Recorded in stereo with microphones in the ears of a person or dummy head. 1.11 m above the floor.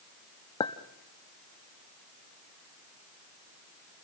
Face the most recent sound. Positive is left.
turn(degrees=15)  # may be behind; listen again after turning